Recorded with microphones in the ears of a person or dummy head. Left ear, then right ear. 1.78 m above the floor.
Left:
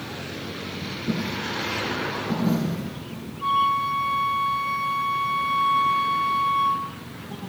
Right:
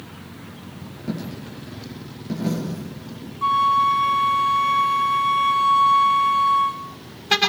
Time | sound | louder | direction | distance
1.1 | a dropped coin | left 5 dB | 50° right (ahead or behind) | 8 m
3.4 | a flute | right 4 dB | 25° right (ahead or behind) | 0.9 m